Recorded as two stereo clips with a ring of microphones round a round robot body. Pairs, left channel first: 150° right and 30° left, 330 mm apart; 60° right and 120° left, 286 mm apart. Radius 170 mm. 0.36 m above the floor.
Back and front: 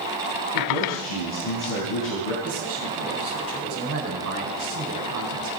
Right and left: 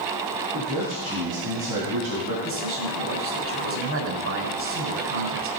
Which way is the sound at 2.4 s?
80° left.